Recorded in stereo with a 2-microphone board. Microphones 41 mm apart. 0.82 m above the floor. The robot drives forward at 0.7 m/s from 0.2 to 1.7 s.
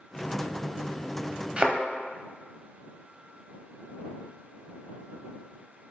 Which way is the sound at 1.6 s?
35° right (ahead or behind).